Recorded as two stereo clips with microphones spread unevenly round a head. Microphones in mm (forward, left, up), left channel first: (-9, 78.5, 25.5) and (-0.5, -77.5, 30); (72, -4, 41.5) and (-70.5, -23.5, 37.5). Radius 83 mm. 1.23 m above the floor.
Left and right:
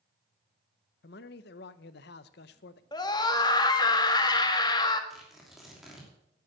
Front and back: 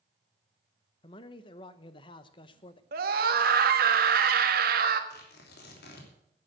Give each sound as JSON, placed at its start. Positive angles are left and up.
{"t": 1.0, "sound": "a man speaking", "azimuth_deg": 70, "distance_m": 0.8}
{"t": 2.9, "sound": "a scream", "azimuth_deg": 160, "distance_m": 1.6}
{"t": 5.1, "sound": "tearing paper", "azimuth_deg": 0, "distance_m": 3.0}